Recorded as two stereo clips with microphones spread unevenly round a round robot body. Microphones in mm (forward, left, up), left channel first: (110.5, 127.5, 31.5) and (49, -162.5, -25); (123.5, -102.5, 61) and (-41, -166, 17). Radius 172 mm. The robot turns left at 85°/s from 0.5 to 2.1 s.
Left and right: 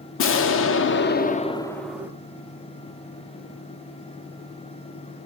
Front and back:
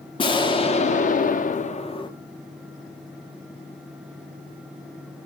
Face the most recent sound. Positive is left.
turn(degrees=-50)